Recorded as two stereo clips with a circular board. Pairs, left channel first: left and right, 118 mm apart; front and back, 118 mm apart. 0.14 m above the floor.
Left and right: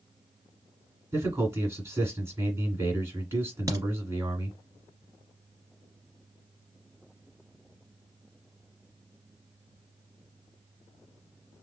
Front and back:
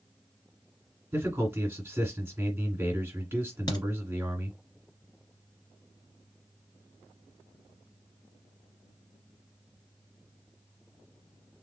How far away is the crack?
About 1.9 m.